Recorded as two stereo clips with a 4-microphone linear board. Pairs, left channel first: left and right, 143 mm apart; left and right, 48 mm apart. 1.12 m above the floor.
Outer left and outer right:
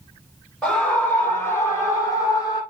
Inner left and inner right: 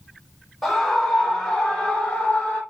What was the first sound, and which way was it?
A scream, 10° left (ahead or behind).